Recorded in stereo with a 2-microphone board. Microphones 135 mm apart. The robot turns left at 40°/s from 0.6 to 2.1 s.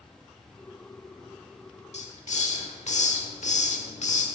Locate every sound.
1.9 s a hiss: 55° left (ahead or behind), 1.1 m; by 4.2 s 60° left (ahead or behind), 1.1 m